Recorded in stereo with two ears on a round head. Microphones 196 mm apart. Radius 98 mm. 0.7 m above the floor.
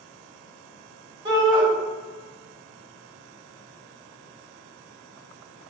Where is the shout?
20° right (ahead or behind), 1.6 m.